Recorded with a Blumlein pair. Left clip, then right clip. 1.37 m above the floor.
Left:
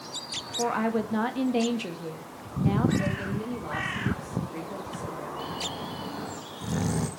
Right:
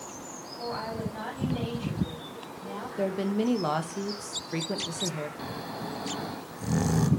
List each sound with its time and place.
0.6 s a woman speaking: 55° left, 1.9 m
3.0 s a woman speaking: 35° right, 1.9 m
5.4 s snoring: 10° right, 0.8 m